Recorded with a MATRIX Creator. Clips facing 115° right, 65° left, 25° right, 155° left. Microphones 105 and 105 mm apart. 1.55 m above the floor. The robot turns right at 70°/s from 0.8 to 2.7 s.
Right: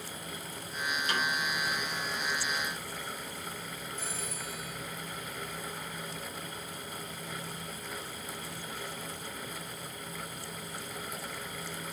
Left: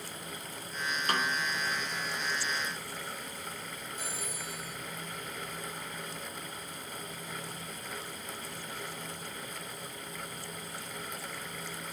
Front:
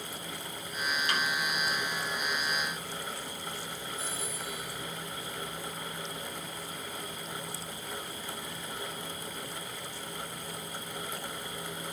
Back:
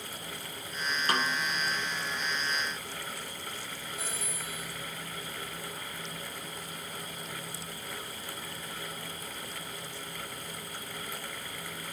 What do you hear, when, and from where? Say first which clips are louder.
1.1 s a snare drum: left 2 dB, back 4 dB; 110° left, 2.5 m; by 1.4 s 135° left, 2.5 m
4.0 s a phone ringing: right 1 dB, front 1 dB; 145° left, 5 m